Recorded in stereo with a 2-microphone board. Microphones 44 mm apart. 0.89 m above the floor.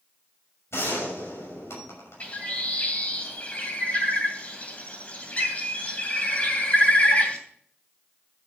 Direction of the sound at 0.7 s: 70° left (ahead or behind).